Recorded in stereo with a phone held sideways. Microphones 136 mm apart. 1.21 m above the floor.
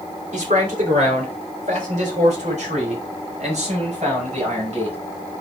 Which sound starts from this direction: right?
A man speaking, at 0.3 s.